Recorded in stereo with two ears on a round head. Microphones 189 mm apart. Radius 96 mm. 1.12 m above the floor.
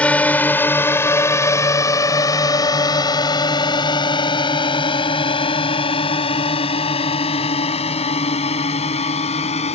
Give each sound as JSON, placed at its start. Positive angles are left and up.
{"t": 0.0, "sound": "a drone", "side_deg": 5}